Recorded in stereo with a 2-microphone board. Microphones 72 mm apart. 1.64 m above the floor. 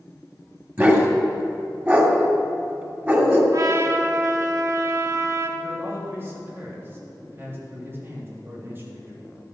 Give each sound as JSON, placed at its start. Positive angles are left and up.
{"t": 0.8, "sound": "a dog barking", "side_deg": -25, "distance_m": 2.5}
{"t": 3.5, "sound": "a trumpet", "side_deg": -45, "distance_m": 1.3}
{"t": 5.6, "sound": "a man speaking", "side_deg": -30, "distance_m": 3.0}